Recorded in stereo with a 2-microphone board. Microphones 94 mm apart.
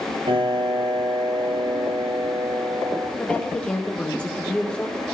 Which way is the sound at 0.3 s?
65° right (ahead or behind).